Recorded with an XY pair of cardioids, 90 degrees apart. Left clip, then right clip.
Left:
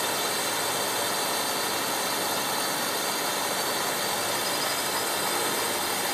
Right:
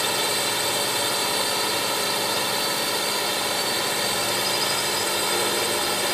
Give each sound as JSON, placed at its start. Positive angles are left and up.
{"t": 0.0, "sound": "a drone", "azimuth_deg": -55}